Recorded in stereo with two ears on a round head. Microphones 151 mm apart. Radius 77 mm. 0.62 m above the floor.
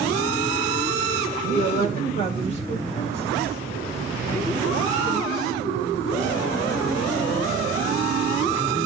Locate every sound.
1.5 s a woman speaking: 45° left (ahead or behind), 2 m; by 8.9 s 40° left (ahead or behind), 8.5 m